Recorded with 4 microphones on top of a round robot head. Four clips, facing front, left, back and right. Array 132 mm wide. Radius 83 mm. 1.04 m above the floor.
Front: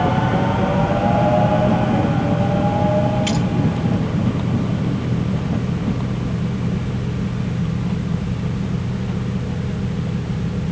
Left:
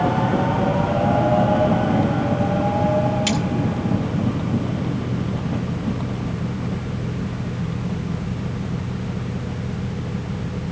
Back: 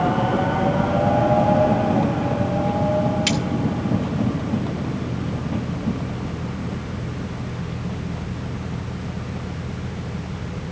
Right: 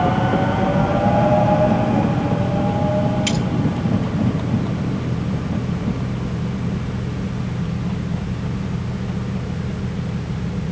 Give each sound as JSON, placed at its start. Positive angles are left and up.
{"t": 3.3, "sound": "cutlery clinking", "azimuth_deg": 170, "distance_m": 3.0}